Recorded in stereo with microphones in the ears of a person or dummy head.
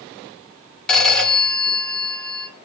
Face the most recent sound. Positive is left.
turn(degrees=0)  # may be behind; listen again after turning